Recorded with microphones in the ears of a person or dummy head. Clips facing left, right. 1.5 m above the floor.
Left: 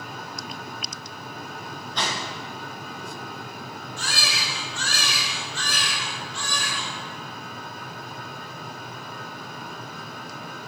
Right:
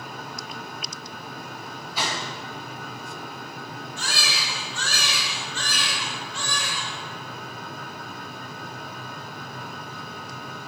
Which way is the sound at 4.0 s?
65° right (ahead or behind).